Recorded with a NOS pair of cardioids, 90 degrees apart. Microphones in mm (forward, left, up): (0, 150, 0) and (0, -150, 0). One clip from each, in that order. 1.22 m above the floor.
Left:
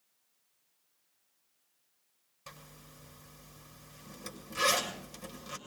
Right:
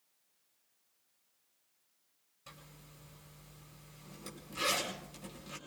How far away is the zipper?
About 6.5 m.